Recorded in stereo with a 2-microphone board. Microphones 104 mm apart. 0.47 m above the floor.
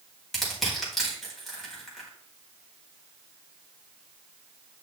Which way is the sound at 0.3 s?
Centre (ahead or behind).